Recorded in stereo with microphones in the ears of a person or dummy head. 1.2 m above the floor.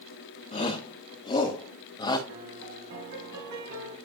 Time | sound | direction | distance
0.5 | a shout | 30° left (ahead or behind) | 2 m
2.3 | a piano | 65° right (ahead or behind) | 3.5 m